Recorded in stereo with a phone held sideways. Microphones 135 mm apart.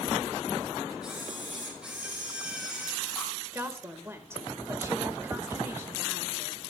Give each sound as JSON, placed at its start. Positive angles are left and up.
{"t": 1.0, "sound": "a camera shutter", "side_deg": -5, "distance_m": 6.0}
{"t": 3.5, "sound": "a woman speaking", "side_deg": -20, "distance_m": 1.7}